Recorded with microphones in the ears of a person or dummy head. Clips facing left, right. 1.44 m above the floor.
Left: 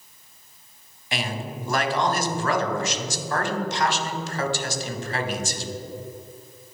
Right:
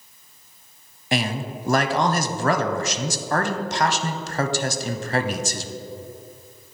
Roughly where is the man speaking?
Right.